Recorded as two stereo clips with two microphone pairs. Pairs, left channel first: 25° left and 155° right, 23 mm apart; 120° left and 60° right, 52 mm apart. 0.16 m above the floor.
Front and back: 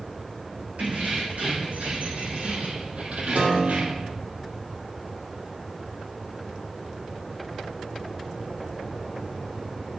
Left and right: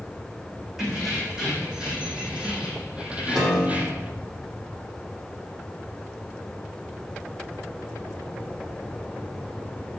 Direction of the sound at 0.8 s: 140° right.